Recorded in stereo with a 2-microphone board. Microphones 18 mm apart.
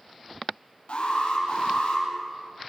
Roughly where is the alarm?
Left.